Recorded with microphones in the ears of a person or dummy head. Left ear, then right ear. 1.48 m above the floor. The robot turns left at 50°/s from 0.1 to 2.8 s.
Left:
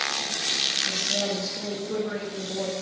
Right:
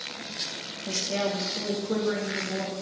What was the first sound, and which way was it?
A woman speaking, 100° right.